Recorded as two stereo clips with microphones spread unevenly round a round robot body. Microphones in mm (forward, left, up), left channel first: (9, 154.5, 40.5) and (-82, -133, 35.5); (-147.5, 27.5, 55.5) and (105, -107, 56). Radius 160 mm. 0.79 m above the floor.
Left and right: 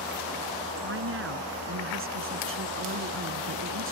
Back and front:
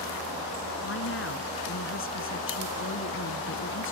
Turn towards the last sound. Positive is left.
turn(degrees=-160)